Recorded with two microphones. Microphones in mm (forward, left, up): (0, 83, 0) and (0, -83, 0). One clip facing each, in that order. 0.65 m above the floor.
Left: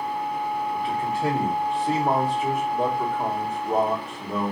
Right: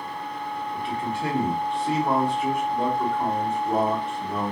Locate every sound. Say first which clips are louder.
0.7 s a man speaking: left 3 dB; 5° left (ahead or behind), 1.3 m